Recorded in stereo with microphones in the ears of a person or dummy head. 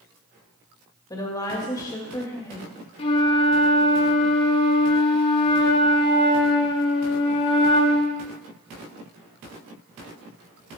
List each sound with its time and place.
1.1 s a woman speaking: 20° left (ahead or behind), 2 m
3.0 s a flute: 30° left (ahead or behind), 1.0 m